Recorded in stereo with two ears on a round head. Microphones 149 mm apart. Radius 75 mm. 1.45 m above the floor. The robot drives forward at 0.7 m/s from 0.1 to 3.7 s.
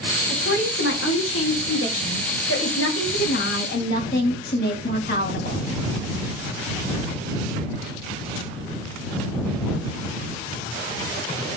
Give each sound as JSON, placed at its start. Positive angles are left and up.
{"t": 0.3, "sound": "a woman speaking", "side_deg": 65, "distance_m": 2.5}